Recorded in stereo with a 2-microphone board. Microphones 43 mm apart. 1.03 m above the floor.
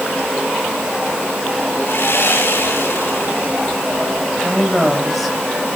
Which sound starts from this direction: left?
Sawing, at 1.9 s.